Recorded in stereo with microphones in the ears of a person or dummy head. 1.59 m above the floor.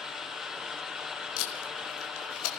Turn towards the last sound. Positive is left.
turn(degrees=85)